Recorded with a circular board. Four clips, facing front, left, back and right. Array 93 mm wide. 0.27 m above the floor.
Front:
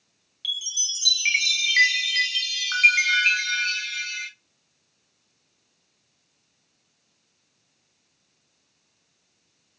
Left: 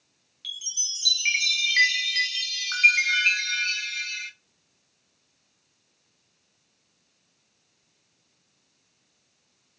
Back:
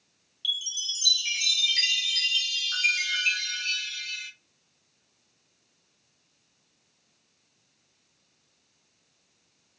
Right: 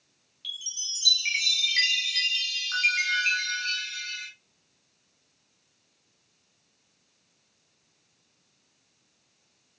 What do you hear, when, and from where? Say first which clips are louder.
0.4 s a chime: left 1 dB, even; 20° left, 0.7 m